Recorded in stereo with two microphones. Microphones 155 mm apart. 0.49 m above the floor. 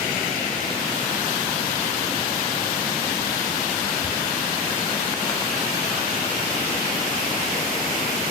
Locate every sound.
4.0 s whispering: 70° left (ahead or behind), 5.5 m